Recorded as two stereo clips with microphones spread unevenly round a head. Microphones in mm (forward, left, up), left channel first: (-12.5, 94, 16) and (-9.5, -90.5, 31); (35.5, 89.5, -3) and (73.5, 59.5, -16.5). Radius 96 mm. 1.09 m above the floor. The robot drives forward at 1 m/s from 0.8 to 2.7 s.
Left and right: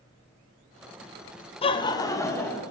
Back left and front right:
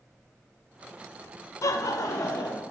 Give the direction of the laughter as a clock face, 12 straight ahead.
7 o'clock.